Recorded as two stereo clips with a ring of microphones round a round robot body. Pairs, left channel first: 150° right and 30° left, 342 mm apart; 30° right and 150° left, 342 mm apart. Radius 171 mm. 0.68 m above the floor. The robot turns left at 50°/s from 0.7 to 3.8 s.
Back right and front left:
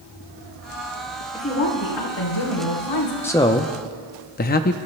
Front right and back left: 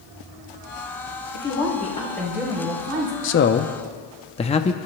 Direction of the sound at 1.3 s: 75° right.